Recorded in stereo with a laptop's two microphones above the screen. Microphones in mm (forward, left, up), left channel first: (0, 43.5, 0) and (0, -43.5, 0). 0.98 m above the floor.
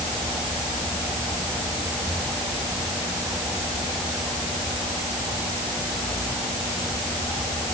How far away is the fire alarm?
I don't hear a fire alarm.